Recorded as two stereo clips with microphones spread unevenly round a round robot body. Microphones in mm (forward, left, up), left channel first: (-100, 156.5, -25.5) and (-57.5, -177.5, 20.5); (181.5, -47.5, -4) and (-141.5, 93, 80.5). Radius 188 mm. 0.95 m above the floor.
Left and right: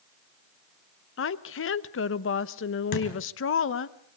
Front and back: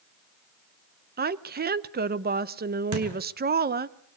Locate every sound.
1.2 s a woman speaking: 85° left, 0.8 m
2.9 s a thud: 115° left, 4.5 m